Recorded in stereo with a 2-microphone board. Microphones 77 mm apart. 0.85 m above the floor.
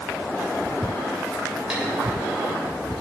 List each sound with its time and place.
1.7 s tapping: 10° right (ahead or behind), 4 m